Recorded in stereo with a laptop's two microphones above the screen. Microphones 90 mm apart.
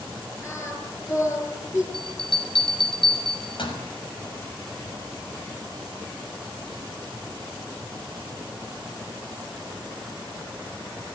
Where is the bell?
70° left (ahead or behind), 6 m.